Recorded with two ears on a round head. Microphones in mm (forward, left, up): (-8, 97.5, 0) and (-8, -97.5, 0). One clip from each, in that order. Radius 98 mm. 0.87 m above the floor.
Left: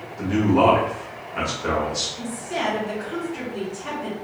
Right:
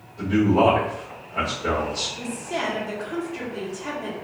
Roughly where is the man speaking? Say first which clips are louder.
Even; centre.